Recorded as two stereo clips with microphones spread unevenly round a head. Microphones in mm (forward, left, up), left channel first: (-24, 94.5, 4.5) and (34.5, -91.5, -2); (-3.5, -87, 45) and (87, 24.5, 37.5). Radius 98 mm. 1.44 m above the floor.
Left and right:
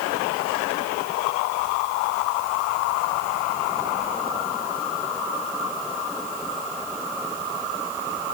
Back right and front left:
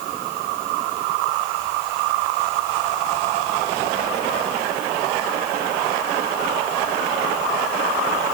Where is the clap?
No clap in this recording.